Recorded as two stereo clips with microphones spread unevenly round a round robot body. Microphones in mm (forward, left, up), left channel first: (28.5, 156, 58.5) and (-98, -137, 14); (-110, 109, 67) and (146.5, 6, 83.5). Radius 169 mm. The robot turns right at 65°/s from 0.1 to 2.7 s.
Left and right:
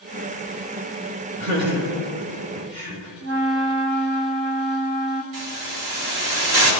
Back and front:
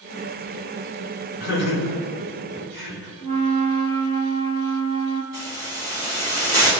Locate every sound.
1.4 s laughter: 175° right, 5 m; by 3.1 s 90° right, 5 m
3.2 s a flute: 90° right, 1.3 m
5.3 s a hiss: 100° right, 5 m